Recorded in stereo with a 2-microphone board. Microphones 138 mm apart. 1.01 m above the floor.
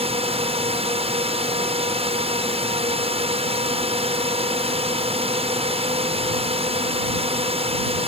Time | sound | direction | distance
0.0 | a drone | 45° right (ahead or behind) | ?